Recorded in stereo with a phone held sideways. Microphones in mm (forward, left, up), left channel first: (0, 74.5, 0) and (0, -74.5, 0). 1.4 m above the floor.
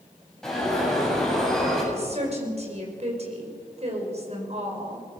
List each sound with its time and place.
0.4 s an alarm: 5° left (ahead or behind), 7.5 m
1.9 s a woman speaking: 50° right (ahead or behind), 5 m